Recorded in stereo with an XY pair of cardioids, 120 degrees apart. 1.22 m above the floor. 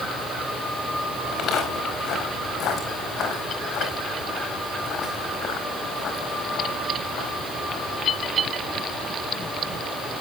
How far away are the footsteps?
About 5.5 m.